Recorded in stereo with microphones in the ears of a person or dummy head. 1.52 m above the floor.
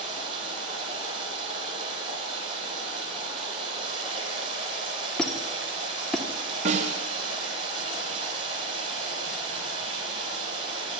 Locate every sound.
0.0 s running water: 35° right (ahead or behind), 9 m
5.2 s a squeak: 10° left (ahead or behind), 1.9 m
6.7 s a snare drum: 45° right (ahead or behind), 3.5 m